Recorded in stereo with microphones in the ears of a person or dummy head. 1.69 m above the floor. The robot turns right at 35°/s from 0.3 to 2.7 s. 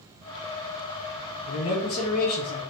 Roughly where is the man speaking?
Left.